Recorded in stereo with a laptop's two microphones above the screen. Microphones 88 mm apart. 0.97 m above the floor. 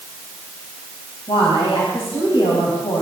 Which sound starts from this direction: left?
A woman speaking, at 1.3 s.